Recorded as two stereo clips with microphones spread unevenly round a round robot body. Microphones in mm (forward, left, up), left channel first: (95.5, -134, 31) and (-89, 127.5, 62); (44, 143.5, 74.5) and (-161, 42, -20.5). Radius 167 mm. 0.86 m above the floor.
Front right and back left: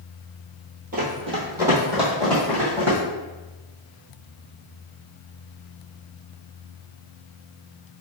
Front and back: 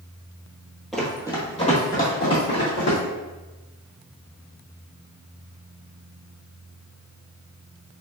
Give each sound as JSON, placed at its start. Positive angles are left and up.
{"t": 0.9, "sound": "running footsteps", "azimuth_deg": 85, "distance_m": 1.0}